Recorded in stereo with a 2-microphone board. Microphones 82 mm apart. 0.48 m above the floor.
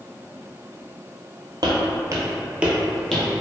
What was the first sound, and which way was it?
Footsteps, 60° right (ahead or behind).